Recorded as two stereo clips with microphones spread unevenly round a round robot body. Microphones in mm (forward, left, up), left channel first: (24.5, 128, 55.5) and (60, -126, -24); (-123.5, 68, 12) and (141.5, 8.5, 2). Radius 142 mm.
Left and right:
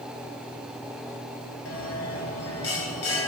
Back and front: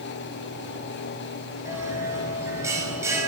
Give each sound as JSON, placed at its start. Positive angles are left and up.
{"t": 1.6, "sound": "a bell", "azimuth_deg": 70, "distance_m": 2.0}